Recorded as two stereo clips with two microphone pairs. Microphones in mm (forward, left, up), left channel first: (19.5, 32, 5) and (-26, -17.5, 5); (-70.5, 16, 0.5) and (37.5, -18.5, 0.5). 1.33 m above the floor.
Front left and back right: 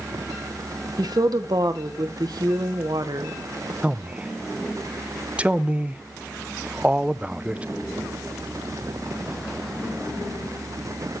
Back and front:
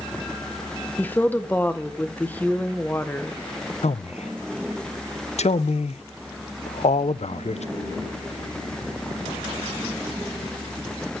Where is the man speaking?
155° left, 0.5 m.